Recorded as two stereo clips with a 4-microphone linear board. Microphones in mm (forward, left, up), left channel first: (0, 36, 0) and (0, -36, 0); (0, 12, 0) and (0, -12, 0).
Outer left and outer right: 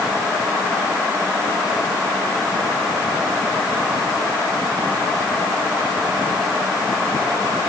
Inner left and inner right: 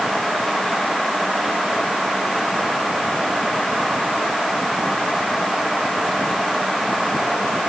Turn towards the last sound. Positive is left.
No sound to turn to.